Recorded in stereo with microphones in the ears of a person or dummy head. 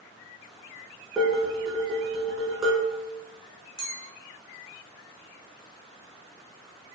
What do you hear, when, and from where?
1.2 s dishes clattering: 5° right (ahead or behind), 1.2 m
3.8 s a clink: 30° right (ahead or behind), 1.0 m